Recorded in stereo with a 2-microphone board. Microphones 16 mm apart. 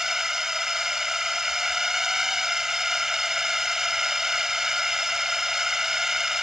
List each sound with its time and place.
0.0 s a drone: 30° right (ahead or behind)